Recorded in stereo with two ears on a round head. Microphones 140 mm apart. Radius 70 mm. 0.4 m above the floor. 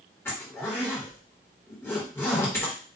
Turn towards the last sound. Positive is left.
turn(degrees=15)  # may be behind; listen again after turning